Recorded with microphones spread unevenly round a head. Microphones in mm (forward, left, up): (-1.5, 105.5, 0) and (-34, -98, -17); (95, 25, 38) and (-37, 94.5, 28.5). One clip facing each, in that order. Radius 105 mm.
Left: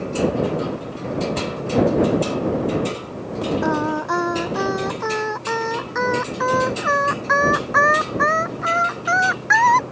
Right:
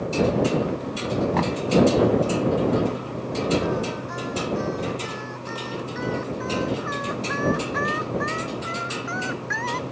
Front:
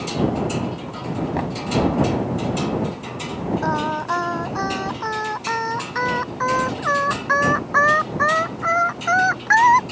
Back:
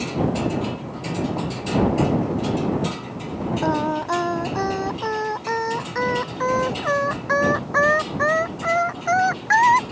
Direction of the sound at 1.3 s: 75° right.